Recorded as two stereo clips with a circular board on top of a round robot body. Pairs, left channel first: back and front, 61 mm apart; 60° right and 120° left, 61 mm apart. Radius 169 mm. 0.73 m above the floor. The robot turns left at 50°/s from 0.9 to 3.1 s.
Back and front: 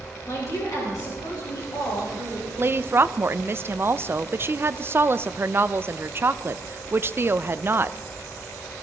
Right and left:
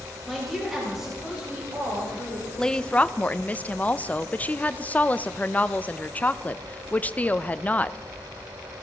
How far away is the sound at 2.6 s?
About 0.7 m.